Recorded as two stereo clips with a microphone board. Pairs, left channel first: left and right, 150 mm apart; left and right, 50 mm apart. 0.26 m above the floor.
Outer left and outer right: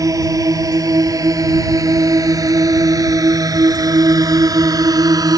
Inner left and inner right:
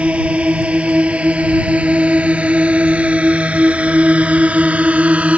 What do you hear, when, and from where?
0.0 s a drone: 25° right (ahead or behind)